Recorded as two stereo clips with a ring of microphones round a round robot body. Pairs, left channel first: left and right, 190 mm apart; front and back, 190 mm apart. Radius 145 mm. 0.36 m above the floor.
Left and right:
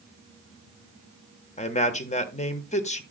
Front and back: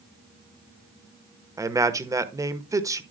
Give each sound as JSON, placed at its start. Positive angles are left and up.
{"t": 1.6, "sound": "a man speaking", "azimuth_deg": 115, "distance_m": 1.2}